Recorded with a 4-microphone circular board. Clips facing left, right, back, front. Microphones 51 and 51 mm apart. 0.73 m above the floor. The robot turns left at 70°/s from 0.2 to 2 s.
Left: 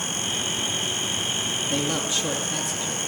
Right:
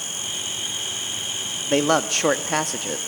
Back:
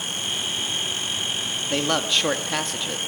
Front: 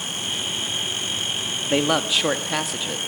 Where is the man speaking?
65° right, 0.7 m; by 3.0 s 85° right, 0.7 m.